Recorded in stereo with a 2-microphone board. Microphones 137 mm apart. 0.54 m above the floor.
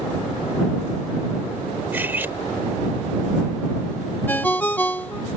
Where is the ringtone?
15° left (ahead or behind).